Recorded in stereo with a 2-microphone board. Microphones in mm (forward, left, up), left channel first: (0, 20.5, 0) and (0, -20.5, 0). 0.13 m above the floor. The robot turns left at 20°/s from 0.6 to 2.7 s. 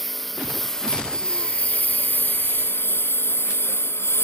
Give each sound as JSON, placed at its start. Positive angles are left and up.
{"t": 0.0, "sound": "a lawn mower", "side_deg": 5}